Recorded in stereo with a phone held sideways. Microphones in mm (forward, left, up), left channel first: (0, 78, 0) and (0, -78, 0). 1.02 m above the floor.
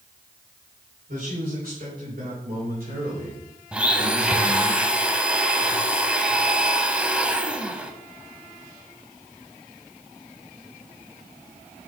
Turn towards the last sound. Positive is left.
turn(degrees=-5)  # may be behind; listen again after turning